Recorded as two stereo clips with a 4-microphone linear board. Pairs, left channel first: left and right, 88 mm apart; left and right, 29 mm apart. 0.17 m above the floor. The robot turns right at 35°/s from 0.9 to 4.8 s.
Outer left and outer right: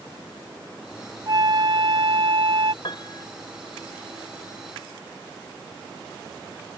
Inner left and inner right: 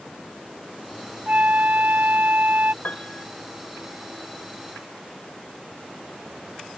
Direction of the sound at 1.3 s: 125° right.